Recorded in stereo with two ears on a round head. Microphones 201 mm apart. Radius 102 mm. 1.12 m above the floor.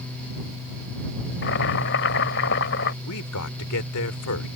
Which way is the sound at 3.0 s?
85° left.